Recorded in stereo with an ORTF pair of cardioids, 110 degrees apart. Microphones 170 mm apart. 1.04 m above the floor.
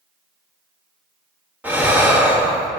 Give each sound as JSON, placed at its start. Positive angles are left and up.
{"t": 1.6, "sound": "breathing", "azimuth_deg": -10, "distance_m": 1.7}